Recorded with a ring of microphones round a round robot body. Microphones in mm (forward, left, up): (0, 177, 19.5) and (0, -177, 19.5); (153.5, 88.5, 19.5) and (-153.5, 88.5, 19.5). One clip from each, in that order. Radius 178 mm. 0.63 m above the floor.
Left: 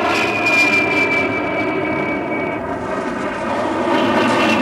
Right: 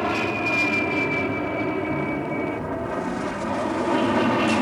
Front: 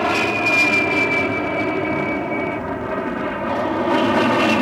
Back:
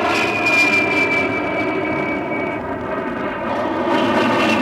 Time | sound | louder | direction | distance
0.0 | an aircraft | left 8 dB, back 1 dB | 120° left | ?